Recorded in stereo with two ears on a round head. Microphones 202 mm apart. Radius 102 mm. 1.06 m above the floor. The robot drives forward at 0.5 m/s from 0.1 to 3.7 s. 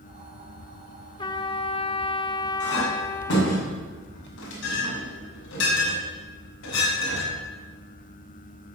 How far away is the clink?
About 6.5 m.